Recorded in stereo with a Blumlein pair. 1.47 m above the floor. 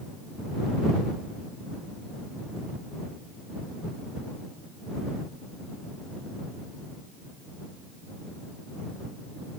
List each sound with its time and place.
Only background noise.